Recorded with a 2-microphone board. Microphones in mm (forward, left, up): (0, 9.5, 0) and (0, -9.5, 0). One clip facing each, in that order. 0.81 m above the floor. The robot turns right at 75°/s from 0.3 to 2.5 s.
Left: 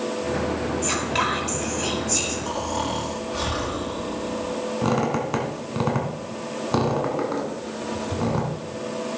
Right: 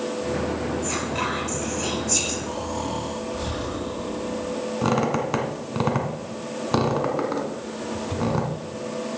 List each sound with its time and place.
0.8 s whispering: 95° left, 5.5 m; by 2.4 s 150° right, 5.5 m
2.5 s snoring: 75° left (ahead or behind), 4 m; by 4.6 s 70° left (ahead or behind), 4 m
4.8 s a squeak: 15° right (ahead or behind), 1.9 m